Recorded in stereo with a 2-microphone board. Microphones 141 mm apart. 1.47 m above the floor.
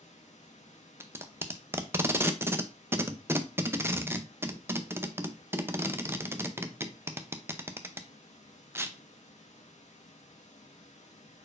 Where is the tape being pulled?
20° right (ahead or behind), 0.5 m.